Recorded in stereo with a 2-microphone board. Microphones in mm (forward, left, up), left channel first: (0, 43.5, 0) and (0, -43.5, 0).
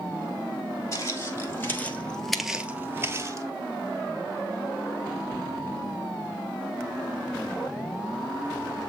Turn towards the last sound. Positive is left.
turn(degrees=-40)  # may be behind; listen again after turning